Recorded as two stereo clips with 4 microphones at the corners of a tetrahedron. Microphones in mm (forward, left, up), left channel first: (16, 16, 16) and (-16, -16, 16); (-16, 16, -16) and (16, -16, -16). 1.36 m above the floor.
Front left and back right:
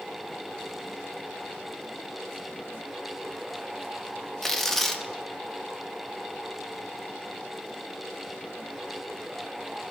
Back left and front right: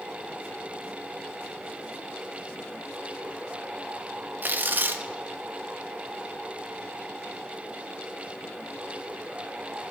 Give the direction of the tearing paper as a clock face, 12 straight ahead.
1 o'clock.